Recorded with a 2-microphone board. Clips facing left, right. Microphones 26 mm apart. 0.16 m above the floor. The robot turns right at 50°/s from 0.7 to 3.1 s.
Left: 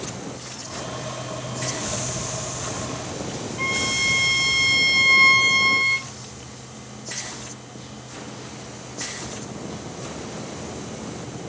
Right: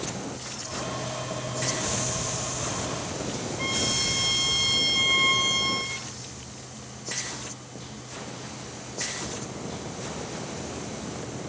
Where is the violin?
75° left (ahead or behind), 1.0 m.